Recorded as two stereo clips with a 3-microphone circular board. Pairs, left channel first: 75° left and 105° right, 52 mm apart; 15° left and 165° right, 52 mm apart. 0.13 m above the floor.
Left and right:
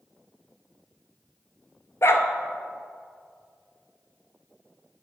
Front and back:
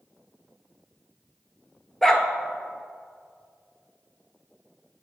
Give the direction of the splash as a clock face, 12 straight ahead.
No splash in this recording.